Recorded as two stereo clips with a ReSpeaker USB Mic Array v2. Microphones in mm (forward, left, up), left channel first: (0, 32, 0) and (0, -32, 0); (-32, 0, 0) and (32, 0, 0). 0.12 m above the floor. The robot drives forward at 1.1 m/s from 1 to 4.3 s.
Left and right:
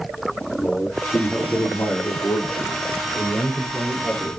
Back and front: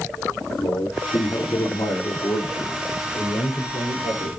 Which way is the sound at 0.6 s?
150° left.